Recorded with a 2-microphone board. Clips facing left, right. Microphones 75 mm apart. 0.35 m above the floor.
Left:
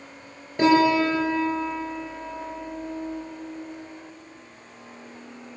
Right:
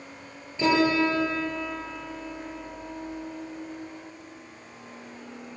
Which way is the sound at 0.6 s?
60° left (ahead or behind).